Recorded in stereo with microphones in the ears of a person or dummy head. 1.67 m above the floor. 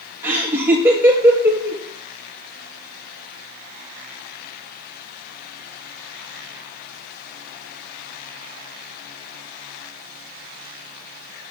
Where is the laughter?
15° right (ahead or behind), 1.3 m.